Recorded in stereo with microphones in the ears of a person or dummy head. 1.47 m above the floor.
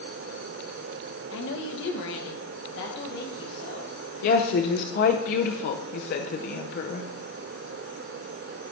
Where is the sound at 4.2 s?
45° left (ahead or behind), 0.5 m.